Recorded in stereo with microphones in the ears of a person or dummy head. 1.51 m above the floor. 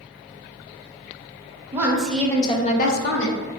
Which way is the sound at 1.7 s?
20° right (ahead or behind).